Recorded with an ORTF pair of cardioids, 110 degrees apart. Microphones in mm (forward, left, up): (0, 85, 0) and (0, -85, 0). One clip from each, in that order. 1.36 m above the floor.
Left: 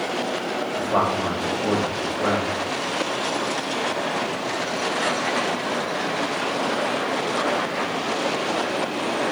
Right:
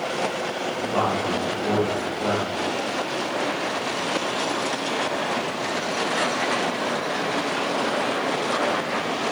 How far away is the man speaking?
About 1.9 m.